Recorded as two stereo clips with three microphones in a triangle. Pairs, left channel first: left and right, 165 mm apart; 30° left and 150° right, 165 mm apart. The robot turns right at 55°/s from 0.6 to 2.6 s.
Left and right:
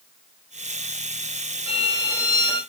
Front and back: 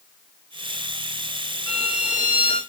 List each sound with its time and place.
1.7 s a violin: 20° right, 1.6 m; by 2.6 s 30° left, 1.6 m